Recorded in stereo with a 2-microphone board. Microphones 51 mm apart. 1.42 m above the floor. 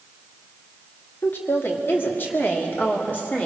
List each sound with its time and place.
1.2 s a woman speaking: 50° left (ahead or behind), 2.5 m; by 3.5 s 35° left (ahead or behind), 3.5 m